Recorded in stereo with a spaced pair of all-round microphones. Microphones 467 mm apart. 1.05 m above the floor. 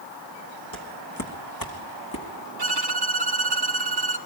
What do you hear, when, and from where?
0.7 s footsteps: 40° left (ahead or behind), 3 m; by 2.3 s 45° left (ahead or behind), 5 m
2.6 s a violin: 50° right (ahead or behind), 1.9 m